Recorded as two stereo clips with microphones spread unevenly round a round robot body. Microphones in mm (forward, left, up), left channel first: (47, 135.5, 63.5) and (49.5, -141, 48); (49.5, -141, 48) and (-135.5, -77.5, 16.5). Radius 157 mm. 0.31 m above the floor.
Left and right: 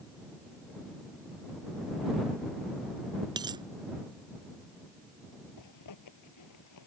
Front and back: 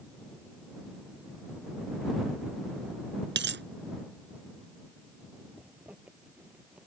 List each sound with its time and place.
3.4 s a dropped coin: 165° right
5.6 s a zipper: 75° left